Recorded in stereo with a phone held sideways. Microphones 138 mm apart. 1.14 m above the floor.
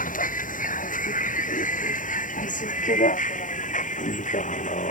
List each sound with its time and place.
0.0 s a vehicle: 65° left (ahead or behind); by 4.9 s 60° left (ahead or behind)